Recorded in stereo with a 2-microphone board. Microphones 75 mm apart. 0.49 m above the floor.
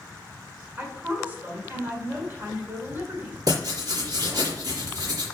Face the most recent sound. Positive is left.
turn(degrees=-55)  # may be behind; listen again after turning